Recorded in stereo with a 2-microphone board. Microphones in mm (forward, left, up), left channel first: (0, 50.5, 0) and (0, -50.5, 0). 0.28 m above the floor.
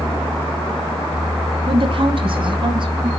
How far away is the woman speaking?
About 2.0 m.